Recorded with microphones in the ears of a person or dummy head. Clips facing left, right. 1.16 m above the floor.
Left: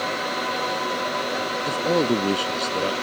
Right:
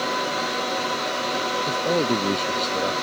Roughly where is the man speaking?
Centre.